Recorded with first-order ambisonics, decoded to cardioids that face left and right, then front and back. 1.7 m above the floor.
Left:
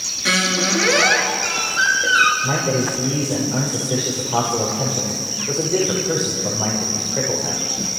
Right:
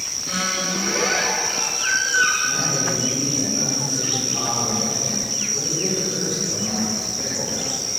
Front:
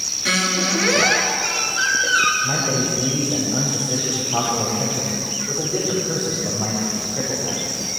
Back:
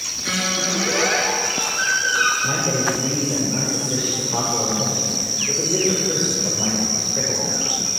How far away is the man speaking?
About 6.5 m.